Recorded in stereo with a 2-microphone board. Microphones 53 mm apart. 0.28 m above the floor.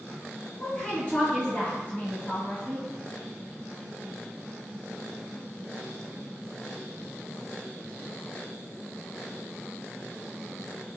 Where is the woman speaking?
30° left (ahead or behind), 1.9 m.